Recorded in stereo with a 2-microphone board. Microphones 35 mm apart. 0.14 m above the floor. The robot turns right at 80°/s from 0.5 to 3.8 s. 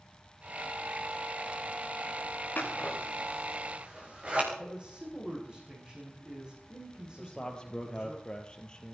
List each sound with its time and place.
2.6 s scissors: 65° left (ahead or behind), 4.5 m; by 4.4 s 35° right (ahead or behind), 4.5 m
4.5 s a man speaking: 25° right (ahead or behind), 9.5 m
7.2 s a man speaking: 25° left (ahead or behind), 3.5 m